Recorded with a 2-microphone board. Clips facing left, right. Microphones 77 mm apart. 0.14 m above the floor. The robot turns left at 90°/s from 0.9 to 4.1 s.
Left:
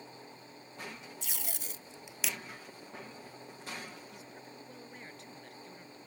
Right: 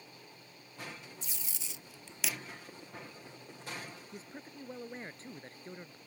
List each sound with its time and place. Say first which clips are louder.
1.2 s tape being pulled: left 5 dB; 70° left (ahead or behind); by 2.4 s 10° right (ahead or behind)
4.1 s a man speaking: right 2 dB; 35° right (ahead or behind)